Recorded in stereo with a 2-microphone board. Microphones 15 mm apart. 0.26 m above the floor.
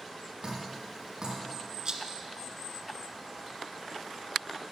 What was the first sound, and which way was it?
Dripping, 50° right (ahead or behind).